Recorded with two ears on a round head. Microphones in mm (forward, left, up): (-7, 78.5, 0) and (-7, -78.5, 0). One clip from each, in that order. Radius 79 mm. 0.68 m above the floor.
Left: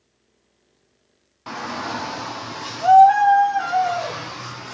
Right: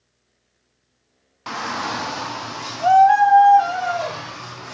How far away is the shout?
About 0.8 m.